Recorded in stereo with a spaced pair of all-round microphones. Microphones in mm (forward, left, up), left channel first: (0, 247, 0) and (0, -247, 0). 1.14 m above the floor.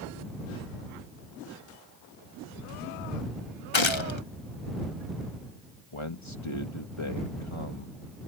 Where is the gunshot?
65° left (ahead or behind).